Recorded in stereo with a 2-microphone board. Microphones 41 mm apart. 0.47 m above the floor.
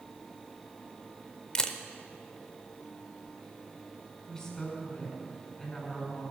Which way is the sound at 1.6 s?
20° left (ahead or behind).